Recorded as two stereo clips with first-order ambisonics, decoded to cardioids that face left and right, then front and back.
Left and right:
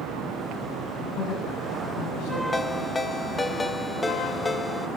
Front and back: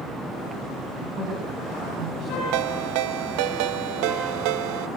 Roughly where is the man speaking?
Behind left.